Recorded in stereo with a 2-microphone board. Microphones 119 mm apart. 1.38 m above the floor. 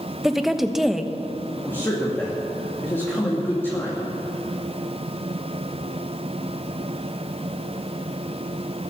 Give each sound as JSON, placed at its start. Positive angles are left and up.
{"t": 0.2, "sound": "a woman speaking", "side_deg": -5, "distance_m": 1.0}
{"t": 1.6, "sound": "a man speaking", "side_deg": 20, "distance_m": 2.5}